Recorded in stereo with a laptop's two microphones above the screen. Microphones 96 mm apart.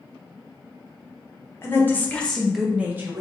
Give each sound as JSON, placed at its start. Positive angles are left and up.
{"t": 1.6, "sound": "a woman speaking", "side_deg": 25, "distance_m": 1.0}